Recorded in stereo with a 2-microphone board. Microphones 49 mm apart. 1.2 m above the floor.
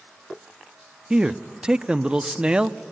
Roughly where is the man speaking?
Centre.